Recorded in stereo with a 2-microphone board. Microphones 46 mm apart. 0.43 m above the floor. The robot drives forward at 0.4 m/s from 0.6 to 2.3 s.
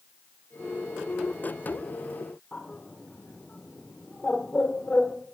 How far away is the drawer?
No drawer in this recording.